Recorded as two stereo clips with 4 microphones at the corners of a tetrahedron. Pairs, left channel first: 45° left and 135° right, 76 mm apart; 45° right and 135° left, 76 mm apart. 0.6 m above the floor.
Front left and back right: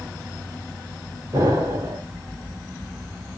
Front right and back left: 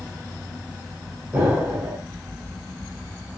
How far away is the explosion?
About 2.5 m.